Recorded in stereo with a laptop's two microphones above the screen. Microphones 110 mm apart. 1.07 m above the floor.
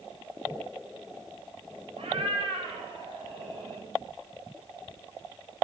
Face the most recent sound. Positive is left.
turn(degrees=-65)  # may be behind; listen again after turning